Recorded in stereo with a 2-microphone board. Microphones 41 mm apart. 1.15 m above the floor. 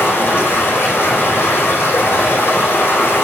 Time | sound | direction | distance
0.0 | running water | 75° left (ahead or behind) | 5 m